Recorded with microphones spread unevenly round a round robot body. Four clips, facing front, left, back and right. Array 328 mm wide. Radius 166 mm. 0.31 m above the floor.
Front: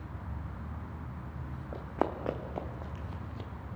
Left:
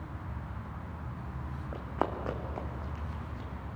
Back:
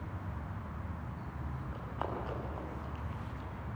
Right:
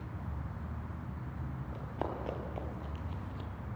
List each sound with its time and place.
1.7 s running footsteps: 35° left, 2.5 m; by 3.5 s 10° right, 3 m